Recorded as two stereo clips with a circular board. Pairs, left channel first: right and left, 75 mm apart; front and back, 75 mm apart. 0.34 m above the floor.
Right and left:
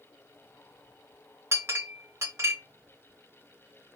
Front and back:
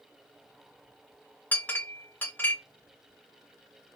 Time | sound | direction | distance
1.5 | a clink | 55° left | 0.6 m